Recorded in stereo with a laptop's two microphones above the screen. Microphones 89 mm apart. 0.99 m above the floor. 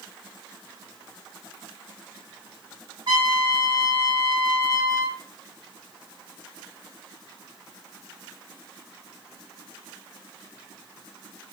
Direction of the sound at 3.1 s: 50° right (ahead or behind).